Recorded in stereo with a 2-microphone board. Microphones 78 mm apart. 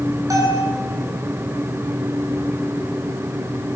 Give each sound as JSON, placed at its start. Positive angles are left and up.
{"t": 0.3, "sound": "a bell", "side_deg": -45, "distance_m": 9.0}